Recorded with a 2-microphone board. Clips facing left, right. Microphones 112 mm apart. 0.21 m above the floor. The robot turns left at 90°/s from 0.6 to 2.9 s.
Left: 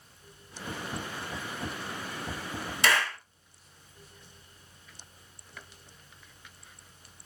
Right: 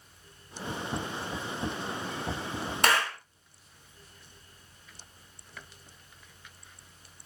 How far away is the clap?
About 1.8 m.